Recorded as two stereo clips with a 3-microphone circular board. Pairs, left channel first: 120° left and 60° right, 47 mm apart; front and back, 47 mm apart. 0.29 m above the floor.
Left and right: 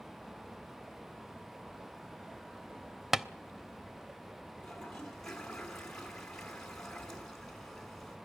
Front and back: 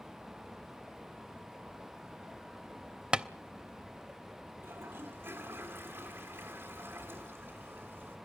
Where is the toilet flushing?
160° right, 3 m.